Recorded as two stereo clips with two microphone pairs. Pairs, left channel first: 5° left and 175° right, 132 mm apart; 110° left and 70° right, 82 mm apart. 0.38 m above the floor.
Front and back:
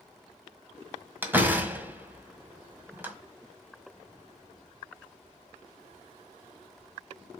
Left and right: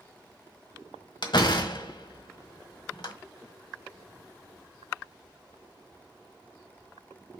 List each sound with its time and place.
1.2 s a door slam: 110° left, 1.5 m